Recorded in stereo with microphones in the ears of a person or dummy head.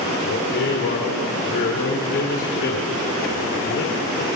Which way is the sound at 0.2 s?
60° left (ahead or behind).